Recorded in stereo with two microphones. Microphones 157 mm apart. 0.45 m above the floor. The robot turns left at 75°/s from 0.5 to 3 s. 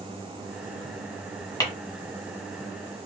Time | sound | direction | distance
1.6 | tapping | 25° left (ahead or behind) | 1.2 m